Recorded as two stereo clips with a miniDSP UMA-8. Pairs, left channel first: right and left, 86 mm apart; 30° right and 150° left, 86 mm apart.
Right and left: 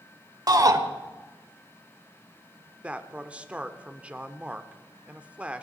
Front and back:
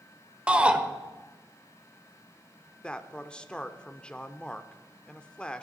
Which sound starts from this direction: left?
A shout, at 0.5 s.